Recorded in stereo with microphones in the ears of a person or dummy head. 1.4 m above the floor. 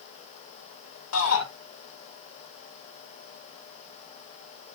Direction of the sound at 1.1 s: 75° left (ahead or behind).